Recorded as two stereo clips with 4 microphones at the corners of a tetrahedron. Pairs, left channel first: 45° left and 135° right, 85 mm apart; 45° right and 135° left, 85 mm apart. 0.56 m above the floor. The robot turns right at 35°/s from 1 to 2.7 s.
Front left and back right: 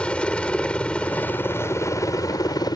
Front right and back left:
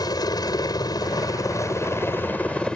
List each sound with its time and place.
0.0 s a helicopter: 30° right; by 2.8 s 30° left